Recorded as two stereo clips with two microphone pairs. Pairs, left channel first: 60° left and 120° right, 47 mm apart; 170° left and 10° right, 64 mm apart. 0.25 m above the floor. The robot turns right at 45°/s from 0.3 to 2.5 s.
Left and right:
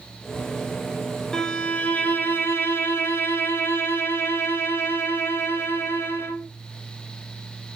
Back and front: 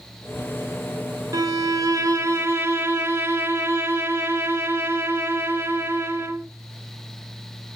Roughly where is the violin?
Ahead.